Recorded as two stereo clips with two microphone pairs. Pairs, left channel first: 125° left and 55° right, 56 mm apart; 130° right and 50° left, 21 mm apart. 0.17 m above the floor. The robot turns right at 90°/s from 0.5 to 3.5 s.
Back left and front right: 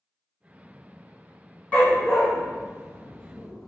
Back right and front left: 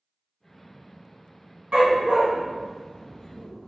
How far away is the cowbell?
No cowbell in this recording.